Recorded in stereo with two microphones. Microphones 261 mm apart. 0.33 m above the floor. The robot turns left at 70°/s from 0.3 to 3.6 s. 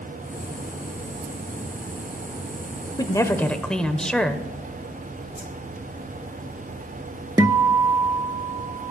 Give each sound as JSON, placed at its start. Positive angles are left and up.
{"t": 3.0, "sound": "a woman speaking", "side_deg": 15, "distance_m": 0.8}
{"t": 5.3, "sound": "a whoosh", "side_deg": 50, "distance_m": 2.0}
{"t": 7.4, "sound": "a guitar", "side_deg": -15, "distance_m": 0.7}